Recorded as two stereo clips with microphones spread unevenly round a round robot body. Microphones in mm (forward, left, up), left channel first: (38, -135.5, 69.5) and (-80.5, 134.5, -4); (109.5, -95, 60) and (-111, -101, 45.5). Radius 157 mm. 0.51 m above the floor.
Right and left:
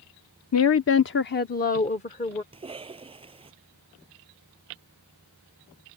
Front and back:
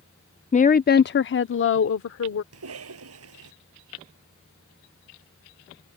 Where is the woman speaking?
40° right; by 2.4 s 10° left.